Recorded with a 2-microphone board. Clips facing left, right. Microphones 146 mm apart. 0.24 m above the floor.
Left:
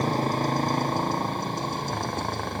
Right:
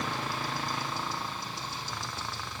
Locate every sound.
0.0 s a motorcycle: 40° left (ahead or behind); by 2.6 s 55° left (ahead or behind)